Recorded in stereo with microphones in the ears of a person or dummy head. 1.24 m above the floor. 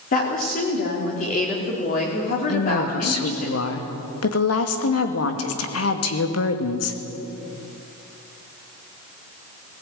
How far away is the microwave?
No microwave in this recording.